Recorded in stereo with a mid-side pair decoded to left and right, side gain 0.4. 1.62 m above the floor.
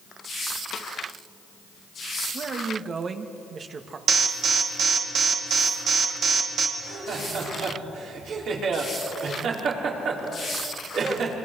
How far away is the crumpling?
I don't hear crumpling.